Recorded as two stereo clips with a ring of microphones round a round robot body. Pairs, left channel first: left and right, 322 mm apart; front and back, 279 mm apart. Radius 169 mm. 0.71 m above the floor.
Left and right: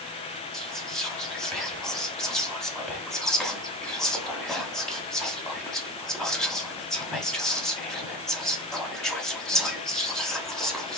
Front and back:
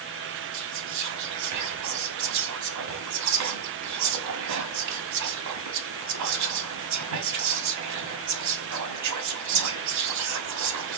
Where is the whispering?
Straight behind, 1.2 m.